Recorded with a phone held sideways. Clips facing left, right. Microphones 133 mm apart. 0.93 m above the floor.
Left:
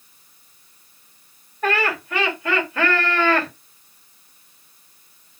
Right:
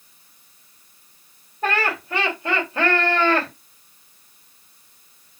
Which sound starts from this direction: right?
Laughter, at 1.6 s.